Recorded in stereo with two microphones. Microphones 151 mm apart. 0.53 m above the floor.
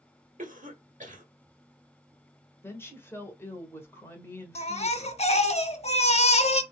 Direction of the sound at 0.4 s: 55° right (ahead or behind).